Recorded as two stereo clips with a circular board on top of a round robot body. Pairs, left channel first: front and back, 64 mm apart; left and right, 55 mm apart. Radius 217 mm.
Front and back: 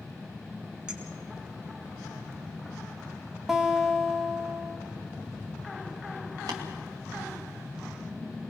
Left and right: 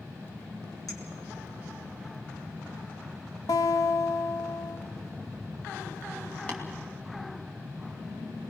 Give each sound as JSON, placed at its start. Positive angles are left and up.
{"t": 0.9, "sound": "a clink", "azimuth_deg": 105, "distance_m": 4.5}
{"t": 3.5, "sound": "a guitar", "azimuth_deg": 95, "distance_m": 0.9}
{"t": 6.5, "sound": "tapping", "azimuth_deg": 155, "distance_m": 2.5}